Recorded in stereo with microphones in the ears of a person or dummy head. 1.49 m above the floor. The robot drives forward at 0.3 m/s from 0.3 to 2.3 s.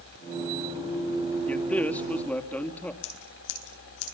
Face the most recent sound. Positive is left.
turn(degrees=65)  # may be behind; listen again after turning